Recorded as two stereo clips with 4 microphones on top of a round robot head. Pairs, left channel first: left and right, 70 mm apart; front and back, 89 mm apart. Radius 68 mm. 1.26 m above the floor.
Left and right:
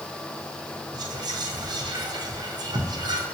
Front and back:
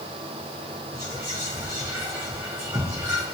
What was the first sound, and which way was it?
Whispering, 115° right.